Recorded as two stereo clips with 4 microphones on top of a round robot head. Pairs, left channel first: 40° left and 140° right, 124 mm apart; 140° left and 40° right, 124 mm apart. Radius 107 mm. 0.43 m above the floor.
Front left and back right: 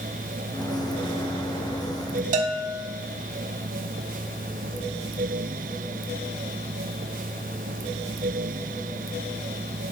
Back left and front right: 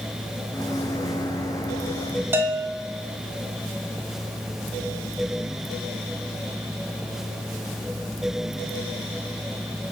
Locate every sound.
0.5 s a microwave: 85° left, 1.3 m
2.3 s a bell: 115° right, 0.5 m